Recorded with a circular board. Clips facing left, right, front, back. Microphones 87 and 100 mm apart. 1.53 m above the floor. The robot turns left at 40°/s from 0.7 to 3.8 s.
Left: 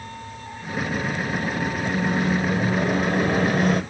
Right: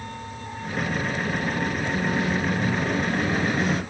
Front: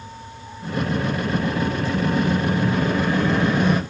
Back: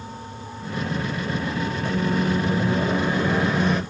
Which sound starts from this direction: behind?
A microwave, at 1.9 s.